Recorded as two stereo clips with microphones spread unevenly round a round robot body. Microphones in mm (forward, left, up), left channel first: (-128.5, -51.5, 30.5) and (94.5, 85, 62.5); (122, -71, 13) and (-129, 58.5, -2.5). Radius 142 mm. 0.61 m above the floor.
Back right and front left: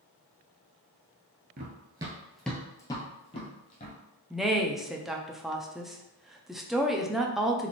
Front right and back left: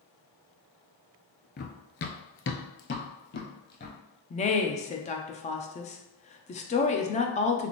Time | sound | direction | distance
1.6 | running footsteps | 5° left | 0.7 m
4.3 | a woman speaking | 70° right | 0.6 m